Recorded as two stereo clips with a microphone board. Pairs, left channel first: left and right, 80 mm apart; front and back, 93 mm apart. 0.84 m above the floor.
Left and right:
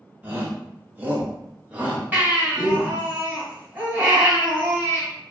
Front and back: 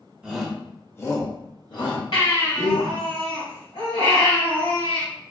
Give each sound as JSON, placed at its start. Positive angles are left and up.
{"t": 0.2, "sound": "a shout", "azimuth_deg": -115, "distance_m": 0.6}
{"t": 2.1, "sound": "a baby crying", "azimuth_deg": -20, "distance_m": 1.8}